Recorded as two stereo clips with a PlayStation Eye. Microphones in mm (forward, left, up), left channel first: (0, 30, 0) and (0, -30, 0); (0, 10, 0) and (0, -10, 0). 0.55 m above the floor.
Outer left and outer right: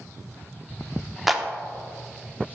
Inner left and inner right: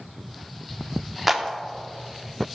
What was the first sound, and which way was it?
A clap, 5° right (ahead or behind).